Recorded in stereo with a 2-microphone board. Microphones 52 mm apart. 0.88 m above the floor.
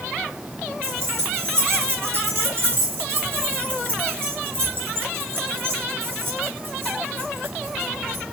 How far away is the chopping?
No chopping in this recording.